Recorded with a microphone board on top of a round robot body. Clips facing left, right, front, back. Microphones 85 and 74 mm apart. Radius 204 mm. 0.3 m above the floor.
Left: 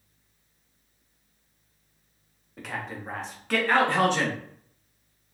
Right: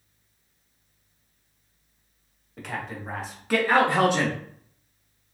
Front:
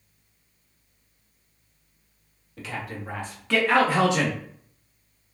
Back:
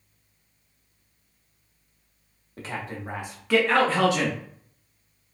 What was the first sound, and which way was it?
A man speaking, straight behind.